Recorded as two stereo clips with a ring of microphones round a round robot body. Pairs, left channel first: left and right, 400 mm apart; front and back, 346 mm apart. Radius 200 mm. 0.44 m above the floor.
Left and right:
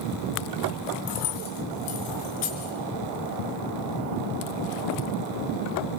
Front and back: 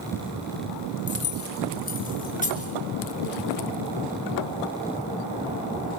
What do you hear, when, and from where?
1.1 s keys jangling: 60° left, 3.5 m; by 2.7 s 70° left, 5 m